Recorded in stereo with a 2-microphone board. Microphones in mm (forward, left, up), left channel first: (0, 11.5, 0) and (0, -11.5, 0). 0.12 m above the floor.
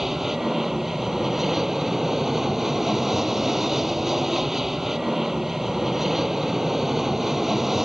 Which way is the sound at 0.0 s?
10° right (ahead or behind).